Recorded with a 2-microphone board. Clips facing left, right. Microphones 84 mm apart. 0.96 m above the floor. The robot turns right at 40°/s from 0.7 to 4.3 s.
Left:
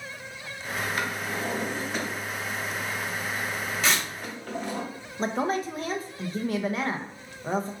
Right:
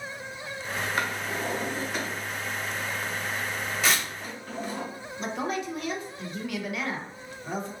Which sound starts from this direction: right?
A drawer, at 1.0 s.